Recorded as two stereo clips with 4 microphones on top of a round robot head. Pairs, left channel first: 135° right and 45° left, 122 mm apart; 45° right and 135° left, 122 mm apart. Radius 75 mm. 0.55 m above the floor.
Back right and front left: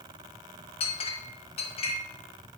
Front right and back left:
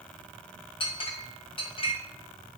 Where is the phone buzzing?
No phone buzzing in this recording.